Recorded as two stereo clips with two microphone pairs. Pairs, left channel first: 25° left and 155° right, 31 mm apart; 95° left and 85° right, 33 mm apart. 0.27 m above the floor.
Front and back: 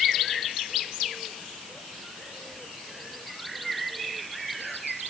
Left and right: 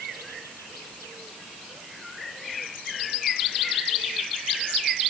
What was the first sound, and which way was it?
Only background noise.